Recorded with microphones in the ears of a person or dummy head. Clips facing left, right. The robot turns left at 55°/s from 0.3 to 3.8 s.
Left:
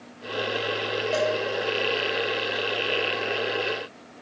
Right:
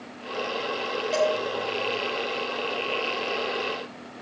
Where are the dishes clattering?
15° left (ahead or behind), 5.5 m; by 1.3 s 25° left (ahead or behind), 5.5 m.